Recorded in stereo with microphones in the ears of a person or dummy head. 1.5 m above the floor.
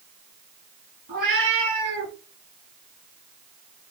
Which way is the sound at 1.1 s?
50° right (ahead or behind).